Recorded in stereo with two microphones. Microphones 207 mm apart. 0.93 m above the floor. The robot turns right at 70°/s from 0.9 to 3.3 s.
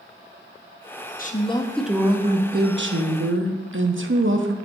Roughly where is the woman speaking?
Behind left.